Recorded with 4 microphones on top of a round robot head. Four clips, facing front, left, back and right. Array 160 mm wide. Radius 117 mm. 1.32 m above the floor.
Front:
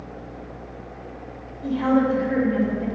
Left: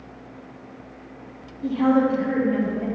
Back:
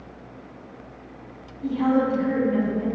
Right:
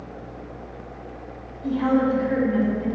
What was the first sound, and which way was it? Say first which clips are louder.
A woman speaking: left 1 dB, front 1 dB; 100° left.